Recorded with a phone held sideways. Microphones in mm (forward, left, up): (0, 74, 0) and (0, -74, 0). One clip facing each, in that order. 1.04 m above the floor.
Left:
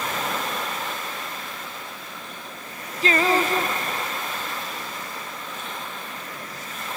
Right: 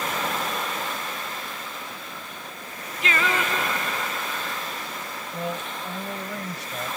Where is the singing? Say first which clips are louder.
Left 5 dB; 35° left (ahead or behind).